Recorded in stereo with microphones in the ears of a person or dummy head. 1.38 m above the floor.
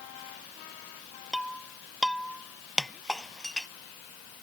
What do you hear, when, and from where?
1.3 s breaking glass: centre (ahead or behind)